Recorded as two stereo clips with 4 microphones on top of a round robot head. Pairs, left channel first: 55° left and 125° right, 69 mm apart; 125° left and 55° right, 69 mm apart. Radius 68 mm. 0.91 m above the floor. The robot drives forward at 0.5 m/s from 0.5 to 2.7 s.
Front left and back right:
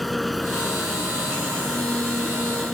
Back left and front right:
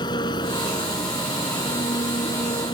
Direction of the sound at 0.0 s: 145° left.